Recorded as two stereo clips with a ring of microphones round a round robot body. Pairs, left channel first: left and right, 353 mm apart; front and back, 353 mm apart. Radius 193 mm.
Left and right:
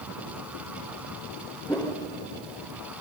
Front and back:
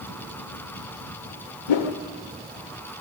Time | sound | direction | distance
1.7 | a whoosh | 5° left | 1.4 m